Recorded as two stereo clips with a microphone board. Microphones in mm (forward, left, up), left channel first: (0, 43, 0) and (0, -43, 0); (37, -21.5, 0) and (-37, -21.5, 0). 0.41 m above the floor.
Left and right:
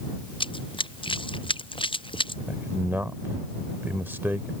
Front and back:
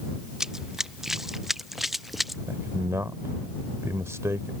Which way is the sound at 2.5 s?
145° right.